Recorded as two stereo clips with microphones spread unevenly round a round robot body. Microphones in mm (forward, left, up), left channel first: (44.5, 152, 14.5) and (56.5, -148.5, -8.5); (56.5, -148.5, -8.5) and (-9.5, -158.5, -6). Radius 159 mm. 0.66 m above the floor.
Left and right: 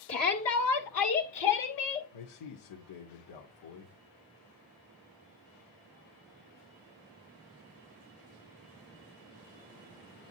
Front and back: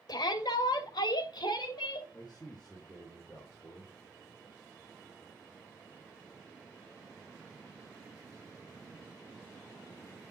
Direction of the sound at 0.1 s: 45° left.